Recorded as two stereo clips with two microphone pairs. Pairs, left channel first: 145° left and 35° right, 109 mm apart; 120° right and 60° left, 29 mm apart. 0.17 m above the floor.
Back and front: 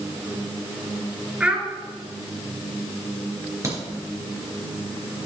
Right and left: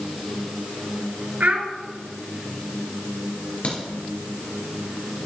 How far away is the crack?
About 3 m.